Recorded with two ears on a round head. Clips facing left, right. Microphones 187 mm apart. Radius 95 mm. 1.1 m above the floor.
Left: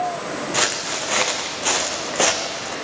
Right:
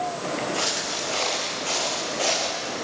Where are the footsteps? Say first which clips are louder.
Left 3 dB; 70° left (ahead or behind), 4 m.